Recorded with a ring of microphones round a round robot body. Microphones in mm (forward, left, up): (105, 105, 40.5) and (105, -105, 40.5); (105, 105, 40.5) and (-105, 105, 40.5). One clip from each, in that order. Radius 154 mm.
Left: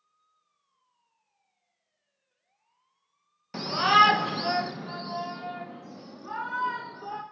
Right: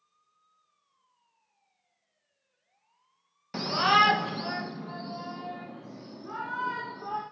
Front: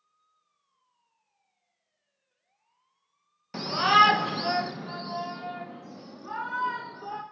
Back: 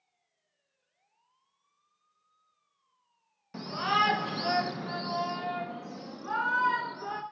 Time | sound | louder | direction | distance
3.5 | a shout | left 2 dB, front 8 dB | 5° left | 0.9 m